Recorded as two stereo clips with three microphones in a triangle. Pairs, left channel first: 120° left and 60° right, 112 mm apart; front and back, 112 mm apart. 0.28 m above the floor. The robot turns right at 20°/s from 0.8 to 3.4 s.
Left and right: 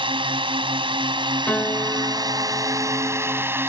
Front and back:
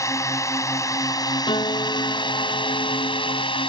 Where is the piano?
45° left; by 3.4 s 80° left.